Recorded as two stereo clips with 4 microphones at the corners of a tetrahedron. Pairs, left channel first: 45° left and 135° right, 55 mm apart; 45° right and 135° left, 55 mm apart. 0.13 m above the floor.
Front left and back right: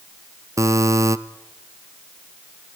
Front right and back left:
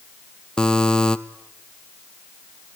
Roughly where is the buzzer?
Behind right.